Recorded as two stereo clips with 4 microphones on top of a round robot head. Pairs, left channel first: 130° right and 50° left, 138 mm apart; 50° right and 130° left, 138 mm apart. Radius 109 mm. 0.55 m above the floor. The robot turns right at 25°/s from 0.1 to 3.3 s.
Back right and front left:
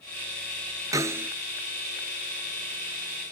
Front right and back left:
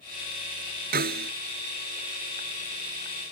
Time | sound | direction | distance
0.9 | a snare drum | 115° left | ?